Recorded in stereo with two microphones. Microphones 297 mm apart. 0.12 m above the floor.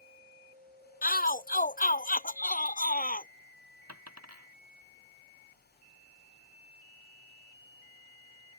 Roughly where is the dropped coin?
Right.